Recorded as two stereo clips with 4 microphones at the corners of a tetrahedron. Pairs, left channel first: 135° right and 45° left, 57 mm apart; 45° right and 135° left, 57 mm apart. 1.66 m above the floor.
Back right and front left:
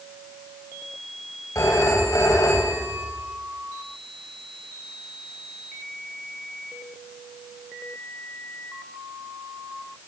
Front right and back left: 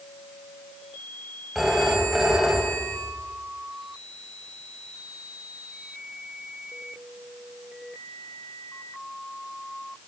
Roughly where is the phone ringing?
Behind right.